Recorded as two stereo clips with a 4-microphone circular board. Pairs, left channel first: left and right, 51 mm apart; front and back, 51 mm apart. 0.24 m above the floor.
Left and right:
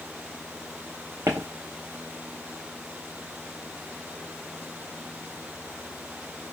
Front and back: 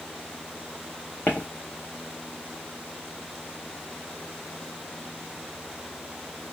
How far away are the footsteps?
About 1.0 m.